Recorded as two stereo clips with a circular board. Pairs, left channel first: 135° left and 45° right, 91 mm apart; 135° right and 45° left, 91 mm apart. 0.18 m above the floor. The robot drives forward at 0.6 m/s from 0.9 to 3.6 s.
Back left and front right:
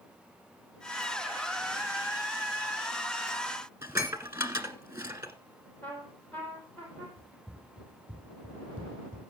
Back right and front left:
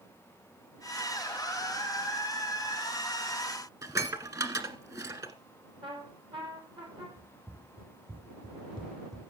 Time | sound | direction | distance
3.8 | dishes clattering | 10° left | 1.4 m
5.8 | a trumpet | 65° left | 4 m
7.2 | running footsteps | 45° left | 3 m